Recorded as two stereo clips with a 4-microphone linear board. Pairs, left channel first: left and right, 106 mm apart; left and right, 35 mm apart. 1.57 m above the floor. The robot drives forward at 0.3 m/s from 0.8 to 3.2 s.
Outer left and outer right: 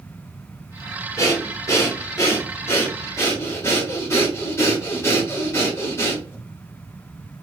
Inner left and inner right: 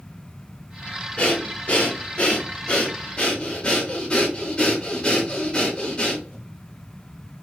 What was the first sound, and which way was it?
Breathing, 35° left (ahead or behind).